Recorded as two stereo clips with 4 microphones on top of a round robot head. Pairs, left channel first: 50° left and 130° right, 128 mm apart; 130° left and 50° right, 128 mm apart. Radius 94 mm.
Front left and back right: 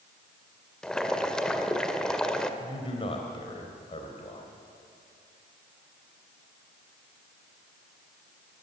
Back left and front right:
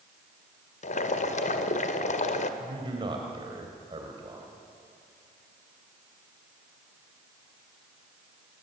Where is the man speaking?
Straight ahead, 3 m.